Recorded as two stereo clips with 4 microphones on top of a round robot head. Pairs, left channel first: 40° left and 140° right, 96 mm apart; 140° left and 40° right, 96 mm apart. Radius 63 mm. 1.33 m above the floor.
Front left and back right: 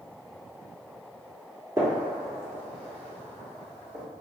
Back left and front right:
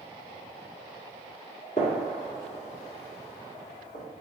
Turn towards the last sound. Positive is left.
turn(degrees=160)